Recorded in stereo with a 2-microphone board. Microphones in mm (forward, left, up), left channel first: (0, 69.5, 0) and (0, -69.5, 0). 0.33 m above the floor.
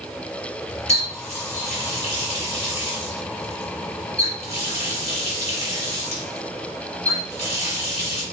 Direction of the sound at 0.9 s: 50° left (ahead or behind).